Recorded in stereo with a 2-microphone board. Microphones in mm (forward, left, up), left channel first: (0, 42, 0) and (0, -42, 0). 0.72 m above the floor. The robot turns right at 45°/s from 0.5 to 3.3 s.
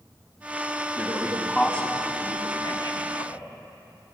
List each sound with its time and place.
1.0 s a man speaking: 15° right (ahead or behind), 6.5 m; by 3.4 s 80° left, 6.5 m